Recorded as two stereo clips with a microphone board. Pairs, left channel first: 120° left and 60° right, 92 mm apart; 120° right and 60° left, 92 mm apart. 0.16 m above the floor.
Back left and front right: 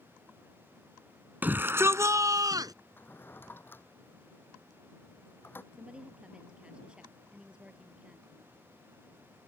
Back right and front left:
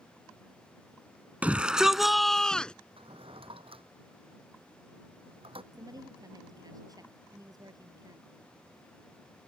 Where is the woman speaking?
15° left.